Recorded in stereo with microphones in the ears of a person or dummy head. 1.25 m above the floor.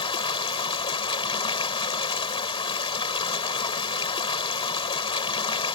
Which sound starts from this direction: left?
Running water, at 0.0 s.